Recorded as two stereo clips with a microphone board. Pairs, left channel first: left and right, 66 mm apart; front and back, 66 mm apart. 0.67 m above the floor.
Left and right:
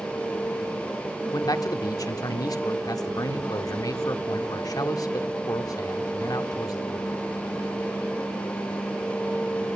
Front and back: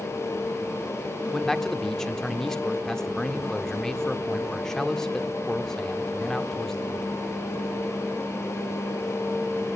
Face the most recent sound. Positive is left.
turn(degrees=80)